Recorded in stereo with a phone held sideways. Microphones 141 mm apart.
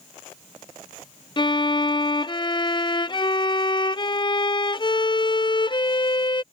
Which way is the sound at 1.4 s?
35° left (ahead or behind).